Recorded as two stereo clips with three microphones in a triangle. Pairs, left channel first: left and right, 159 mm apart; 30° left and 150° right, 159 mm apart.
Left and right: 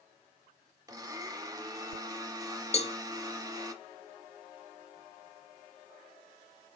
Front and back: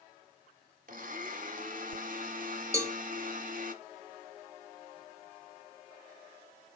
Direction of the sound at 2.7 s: 140° left.